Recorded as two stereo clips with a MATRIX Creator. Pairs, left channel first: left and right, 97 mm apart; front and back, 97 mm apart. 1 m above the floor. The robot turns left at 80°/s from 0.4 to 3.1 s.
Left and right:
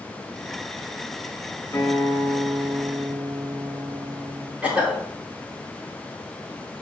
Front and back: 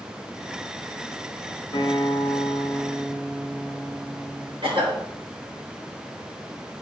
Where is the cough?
165° right, 3.5 m.